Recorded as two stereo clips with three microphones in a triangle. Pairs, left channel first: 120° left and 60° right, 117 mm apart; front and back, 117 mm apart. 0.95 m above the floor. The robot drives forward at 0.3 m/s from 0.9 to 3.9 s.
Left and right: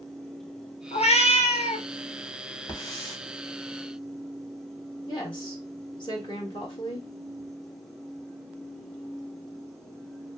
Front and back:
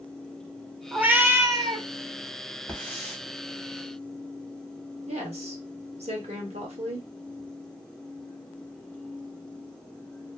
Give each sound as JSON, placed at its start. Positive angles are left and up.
{"t": 0.9, "sound": "a cat meowing", "azimuth_deg": 100, "distance_m": 0.5}
{"t": 2.7, "sound": "a hiss", "azimuth_deg": 75, "distance_m": 1.3}
{"t": 5.1, "sound": "a woman speaking", "azimuth_deg": 160, "distance_m": 1.2}